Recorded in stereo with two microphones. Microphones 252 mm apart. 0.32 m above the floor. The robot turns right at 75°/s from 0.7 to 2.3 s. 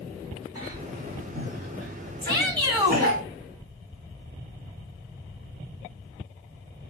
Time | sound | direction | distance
0.6 | a cough | 15° right (ahead or behind) | 4 m
2.2 | a shout | 20° right (ahead or behind) | 2 m